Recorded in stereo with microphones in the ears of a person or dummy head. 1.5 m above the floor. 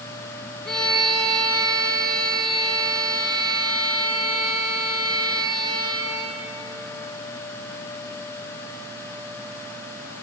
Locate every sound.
0.7 s a violin: centre (ahead or behind), 5 m